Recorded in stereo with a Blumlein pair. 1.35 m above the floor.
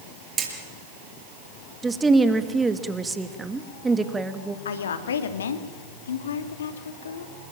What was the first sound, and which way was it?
Hammering, 25° right.